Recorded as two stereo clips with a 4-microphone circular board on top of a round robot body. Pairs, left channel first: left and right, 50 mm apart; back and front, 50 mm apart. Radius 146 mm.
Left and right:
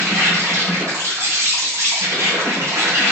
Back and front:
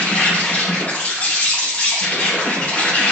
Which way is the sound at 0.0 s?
120° right.